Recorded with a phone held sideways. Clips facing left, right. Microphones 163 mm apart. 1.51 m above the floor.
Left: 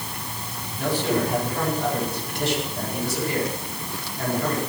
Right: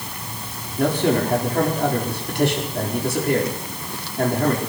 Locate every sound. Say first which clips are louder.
0.8 s a man speaking: right 4 dB; 55° right (ahead or behind), 5 m